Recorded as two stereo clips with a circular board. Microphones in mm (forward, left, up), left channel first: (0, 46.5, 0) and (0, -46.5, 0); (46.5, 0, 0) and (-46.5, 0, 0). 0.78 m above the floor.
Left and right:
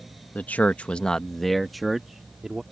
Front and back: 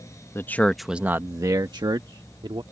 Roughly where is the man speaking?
Ahead left.